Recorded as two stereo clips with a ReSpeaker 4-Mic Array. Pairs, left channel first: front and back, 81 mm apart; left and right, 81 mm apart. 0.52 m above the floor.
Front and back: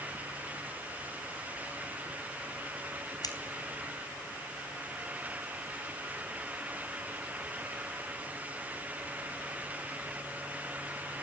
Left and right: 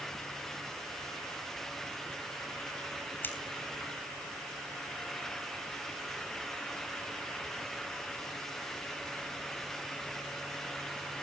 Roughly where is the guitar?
I don't hear a guitar.